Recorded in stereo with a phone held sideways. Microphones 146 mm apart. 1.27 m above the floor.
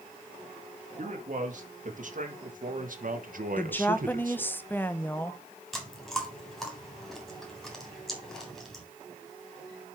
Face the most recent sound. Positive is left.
turn(degrees=0)  # may be behind; listen again after turning